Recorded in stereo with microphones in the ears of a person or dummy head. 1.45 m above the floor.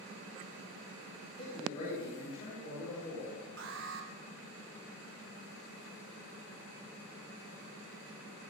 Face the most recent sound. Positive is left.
turn(degrees=-65)  # may be behind; listen again after turning